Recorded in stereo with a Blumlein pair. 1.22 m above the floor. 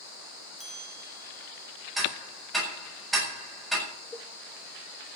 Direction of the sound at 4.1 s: 10° left.